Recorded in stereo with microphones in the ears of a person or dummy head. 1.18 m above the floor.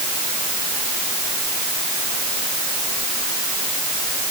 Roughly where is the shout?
No shout in this recording.